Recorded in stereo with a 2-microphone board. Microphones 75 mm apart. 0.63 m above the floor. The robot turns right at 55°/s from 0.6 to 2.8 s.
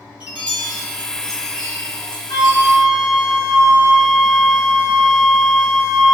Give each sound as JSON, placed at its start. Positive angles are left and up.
{"t": 0.2, "sound": "a chime", "side_deg": -15, "distance_m": 0.9}
{"t": 2.3, "sound": "a flute", "side_deg": 45, "distance_m": 0.6}